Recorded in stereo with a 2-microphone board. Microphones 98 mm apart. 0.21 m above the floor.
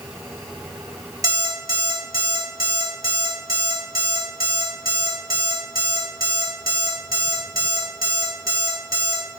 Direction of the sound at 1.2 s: 40° right (ahead or behind).